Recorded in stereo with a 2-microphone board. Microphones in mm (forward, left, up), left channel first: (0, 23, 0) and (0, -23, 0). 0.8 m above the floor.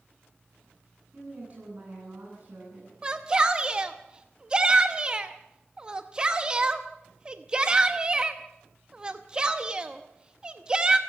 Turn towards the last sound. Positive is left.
turn(degrees=-20)  # may be behind; listen again after turning